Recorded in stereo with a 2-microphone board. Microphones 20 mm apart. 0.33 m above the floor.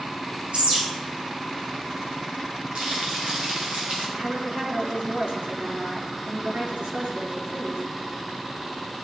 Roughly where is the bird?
Right.